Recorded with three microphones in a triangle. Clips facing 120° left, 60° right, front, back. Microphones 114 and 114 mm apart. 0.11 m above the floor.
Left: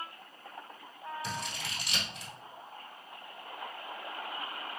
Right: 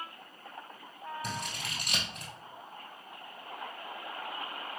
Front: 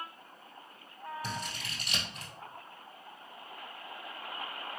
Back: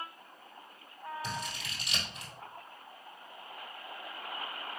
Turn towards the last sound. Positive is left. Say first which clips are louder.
# even, even
turn(degrees=-40)